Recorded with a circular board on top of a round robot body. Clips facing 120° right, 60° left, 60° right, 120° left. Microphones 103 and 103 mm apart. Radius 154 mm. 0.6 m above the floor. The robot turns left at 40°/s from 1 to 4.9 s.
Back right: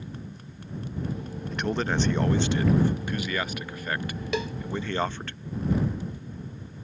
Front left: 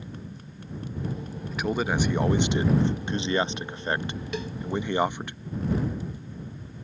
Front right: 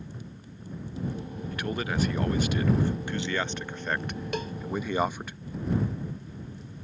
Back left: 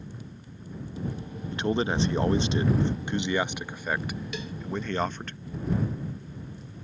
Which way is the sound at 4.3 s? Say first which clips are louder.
Back right 6 dB, front right 4 dB; 105° right.